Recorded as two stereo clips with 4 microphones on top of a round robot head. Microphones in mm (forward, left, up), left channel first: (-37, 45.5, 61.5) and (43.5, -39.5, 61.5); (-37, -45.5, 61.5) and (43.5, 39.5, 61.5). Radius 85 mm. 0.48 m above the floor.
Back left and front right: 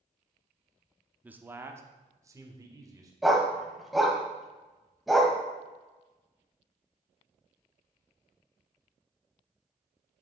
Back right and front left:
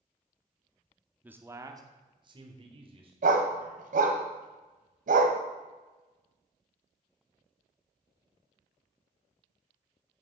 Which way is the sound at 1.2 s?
Straight ahead.